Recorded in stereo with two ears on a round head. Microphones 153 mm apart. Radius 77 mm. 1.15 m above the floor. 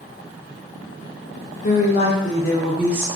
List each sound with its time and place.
1.6 s a woman speaking: 45° left (ahead or behind), 0.9 m; by 3.1 s 20° right (ahead or behind), 0.6 m